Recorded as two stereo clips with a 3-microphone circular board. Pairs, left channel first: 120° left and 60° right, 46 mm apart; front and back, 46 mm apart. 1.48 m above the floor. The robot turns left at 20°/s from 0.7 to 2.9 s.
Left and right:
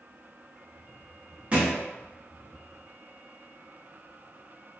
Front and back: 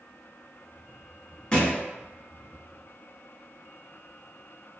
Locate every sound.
1.5 s a thud: 40° right, 0.8 m; by 1.8 s 45° right, 0.8 m